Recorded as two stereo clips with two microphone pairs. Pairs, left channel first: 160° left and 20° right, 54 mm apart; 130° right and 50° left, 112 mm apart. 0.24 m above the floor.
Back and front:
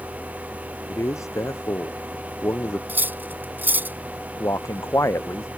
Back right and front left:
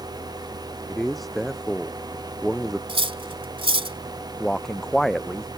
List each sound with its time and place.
0.9 s a man speaking: 140° left
2.9 s cutlery clinking: 25° left
4.4 s a man speaking: 145° left